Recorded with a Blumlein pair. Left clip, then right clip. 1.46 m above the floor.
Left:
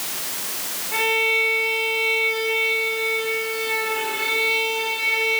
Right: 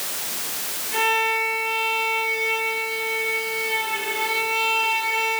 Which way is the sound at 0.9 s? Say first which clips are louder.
Left 1 dB; 50° left.